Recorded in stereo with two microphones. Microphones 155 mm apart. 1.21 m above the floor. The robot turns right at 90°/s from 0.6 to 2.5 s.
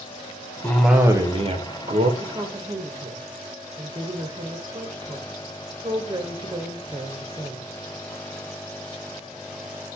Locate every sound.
0.6 s a cough: 165° left, 0.5 m; by 2.1 s 65° right, 0.5 m
2.2 s a woman speaking: 35° right (ahead or behind), 0.5 m; by 7.7 s 25° right (ahead or behind), 0.5 m